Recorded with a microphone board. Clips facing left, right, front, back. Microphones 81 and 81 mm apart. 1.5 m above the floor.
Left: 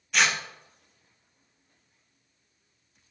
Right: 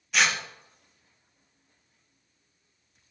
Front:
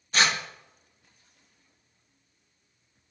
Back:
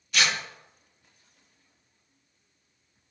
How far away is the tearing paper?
About 0.7 m.